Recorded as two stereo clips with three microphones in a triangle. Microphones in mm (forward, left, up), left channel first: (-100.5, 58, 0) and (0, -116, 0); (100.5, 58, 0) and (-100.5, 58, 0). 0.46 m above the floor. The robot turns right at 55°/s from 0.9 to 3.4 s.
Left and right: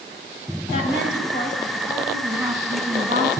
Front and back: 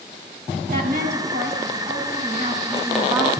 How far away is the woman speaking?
About 2 m.